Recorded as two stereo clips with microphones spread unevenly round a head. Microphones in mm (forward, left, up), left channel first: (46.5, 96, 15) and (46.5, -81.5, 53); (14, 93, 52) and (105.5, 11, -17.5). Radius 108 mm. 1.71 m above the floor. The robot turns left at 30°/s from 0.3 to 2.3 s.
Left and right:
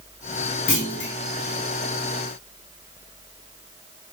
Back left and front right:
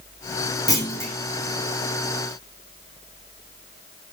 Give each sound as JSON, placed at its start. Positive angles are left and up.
{"t": 0.7, "sound": "a clunk", "azimuth_deg": 85, "distance_m": 0.7}